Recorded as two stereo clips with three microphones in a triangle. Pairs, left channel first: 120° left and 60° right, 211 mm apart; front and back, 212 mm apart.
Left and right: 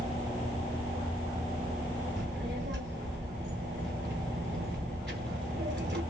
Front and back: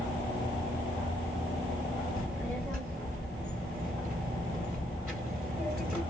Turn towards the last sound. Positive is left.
turn(degrees=-95)